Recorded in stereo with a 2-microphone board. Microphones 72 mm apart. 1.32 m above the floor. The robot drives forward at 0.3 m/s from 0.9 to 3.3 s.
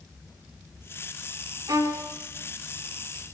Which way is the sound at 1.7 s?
65° right (ahead or behind).